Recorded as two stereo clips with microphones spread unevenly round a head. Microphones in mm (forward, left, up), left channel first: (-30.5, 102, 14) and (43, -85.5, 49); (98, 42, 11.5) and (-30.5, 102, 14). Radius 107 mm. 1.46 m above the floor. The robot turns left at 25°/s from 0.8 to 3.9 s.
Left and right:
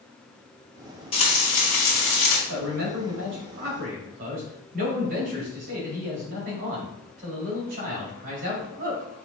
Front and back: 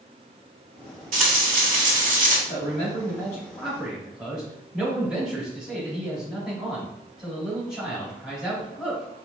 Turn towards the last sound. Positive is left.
turn(degrees=-120)